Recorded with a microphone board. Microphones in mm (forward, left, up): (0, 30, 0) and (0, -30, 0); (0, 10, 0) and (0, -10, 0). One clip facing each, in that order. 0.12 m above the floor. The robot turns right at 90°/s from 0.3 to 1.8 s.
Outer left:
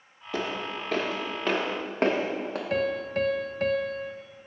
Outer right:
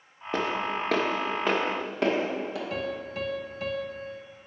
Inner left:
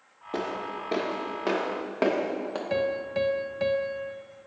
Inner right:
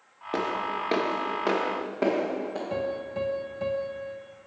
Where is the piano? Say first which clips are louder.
Outer left 5 dB, inner left 6 dB; 55° left (ahead or behind), 0.5 m.